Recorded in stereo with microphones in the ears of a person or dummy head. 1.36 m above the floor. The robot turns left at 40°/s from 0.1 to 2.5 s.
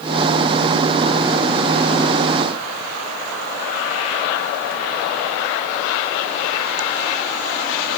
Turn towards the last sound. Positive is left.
No sound to turn to.